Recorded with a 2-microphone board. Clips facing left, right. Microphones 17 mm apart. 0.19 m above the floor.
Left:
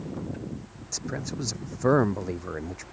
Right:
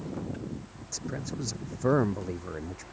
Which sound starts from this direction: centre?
A man speaking, at 0.9 s.